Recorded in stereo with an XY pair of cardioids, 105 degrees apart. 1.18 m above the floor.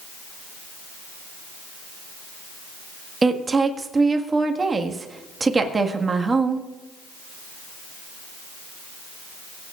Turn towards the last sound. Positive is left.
turn(degrees=-25)